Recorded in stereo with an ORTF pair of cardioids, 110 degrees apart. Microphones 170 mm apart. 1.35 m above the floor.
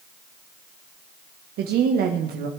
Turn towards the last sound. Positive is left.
turn(degrees=-70)